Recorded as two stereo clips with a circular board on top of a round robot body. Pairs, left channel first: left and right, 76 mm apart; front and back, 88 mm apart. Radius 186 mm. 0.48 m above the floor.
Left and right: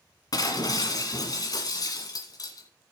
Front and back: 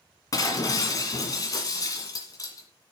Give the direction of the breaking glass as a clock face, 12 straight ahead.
10 o'clock.